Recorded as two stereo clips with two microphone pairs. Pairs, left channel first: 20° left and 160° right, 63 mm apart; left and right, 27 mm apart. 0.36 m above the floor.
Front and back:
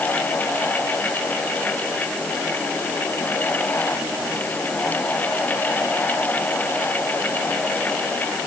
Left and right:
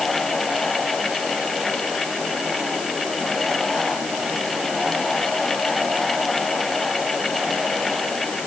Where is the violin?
I don't hear a violin.